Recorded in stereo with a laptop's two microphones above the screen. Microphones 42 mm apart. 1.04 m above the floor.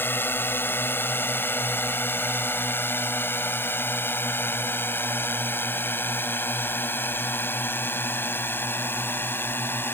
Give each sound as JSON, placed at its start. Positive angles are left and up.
{"t": 0.0, "sound": "a drone", "side_deg": 60}